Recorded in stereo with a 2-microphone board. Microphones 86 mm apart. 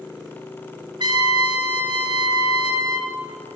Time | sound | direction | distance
1.0 | a trumpet | 60° right (ahead or behind) | 2 m